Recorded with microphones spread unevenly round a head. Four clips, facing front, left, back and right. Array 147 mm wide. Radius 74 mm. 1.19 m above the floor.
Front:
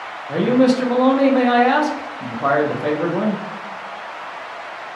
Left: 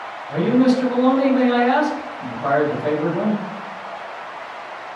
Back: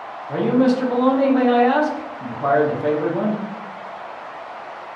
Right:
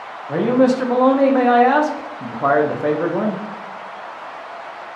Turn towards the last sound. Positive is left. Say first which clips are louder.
# right 1 dB, front 2 dB
turn(degrees=-70)